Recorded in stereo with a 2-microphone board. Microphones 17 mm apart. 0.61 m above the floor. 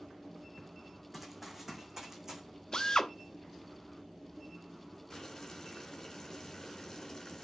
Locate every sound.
1.1 s running footsteps: 5° right (ahead or behind), 2.5 m; by 2.4 s 25° right (ahead or behind), 2.5 m
2.7 s a drill: 40° left (ahead or behind), 1.0 m
5.1 s boiling: 25° left (ahead or behind), 3.5 m